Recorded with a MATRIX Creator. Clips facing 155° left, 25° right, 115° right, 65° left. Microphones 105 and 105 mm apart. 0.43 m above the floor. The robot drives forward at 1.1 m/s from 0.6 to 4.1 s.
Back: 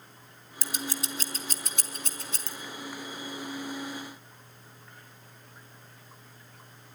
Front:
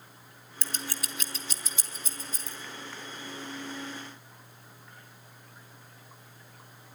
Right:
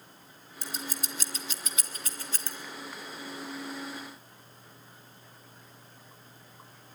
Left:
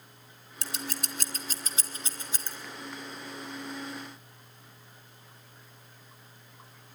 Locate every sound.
0.6 s scissors: 70° left, 1.3 m; by 2.5 s 145° left, 2 m